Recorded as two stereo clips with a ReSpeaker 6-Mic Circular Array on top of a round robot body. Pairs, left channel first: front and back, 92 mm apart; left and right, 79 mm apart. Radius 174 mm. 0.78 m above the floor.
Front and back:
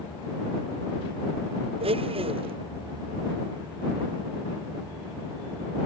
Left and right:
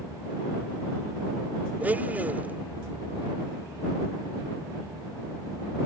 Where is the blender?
160° right.